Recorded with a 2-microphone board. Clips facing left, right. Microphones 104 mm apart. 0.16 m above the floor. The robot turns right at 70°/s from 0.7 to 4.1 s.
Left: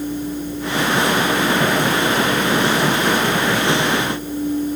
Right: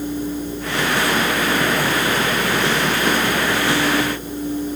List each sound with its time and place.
Only background noise.